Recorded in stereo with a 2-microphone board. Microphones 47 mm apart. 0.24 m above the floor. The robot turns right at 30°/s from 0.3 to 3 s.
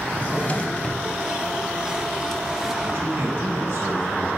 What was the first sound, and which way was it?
A drawer, 35° left (ahead or behind).